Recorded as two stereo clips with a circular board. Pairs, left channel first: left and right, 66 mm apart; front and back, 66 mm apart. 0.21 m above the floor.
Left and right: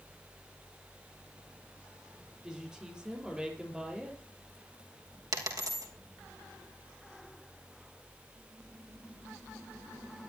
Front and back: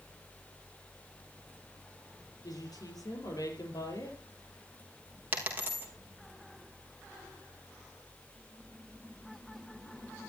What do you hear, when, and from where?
2.4 s a woman speaking: 10° right, 5.5 m
5.3 s a dropped coin: 115° right, 4.5 m